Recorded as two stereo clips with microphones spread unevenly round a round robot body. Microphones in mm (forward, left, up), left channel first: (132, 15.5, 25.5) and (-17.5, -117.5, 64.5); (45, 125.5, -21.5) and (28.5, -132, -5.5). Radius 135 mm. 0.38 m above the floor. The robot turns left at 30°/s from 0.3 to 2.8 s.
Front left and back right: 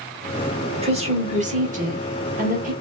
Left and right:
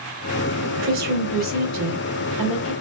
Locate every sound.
0.8 s a woman speaking: 90° right, 1.2 m; by 2.7 s 145° right, 1.2 m